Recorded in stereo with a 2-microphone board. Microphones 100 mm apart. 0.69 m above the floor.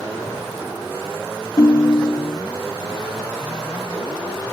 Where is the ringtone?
40° left (ahead or behind).